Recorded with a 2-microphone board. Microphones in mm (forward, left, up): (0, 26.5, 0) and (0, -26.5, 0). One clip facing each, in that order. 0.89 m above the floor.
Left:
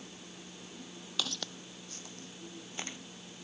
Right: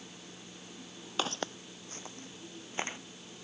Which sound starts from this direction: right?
Footsteps, at 1.2 s.